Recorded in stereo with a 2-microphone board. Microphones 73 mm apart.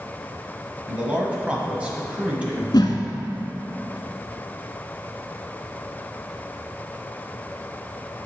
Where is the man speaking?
15° right (ahead or behind), 1.2 m.